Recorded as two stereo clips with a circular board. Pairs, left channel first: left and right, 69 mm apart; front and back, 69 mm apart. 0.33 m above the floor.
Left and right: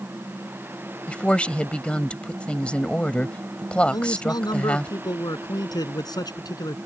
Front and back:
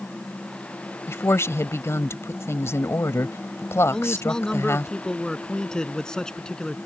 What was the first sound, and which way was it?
A woman speaking, 20° left.